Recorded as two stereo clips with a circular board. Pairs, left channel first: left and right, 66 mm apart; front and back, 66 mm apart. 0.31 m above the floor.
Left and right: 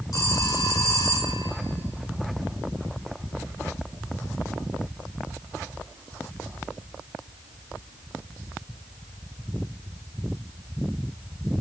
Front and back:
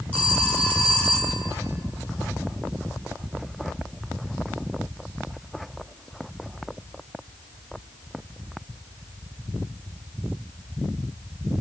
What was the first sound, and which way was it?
A phone ringing, 65° left.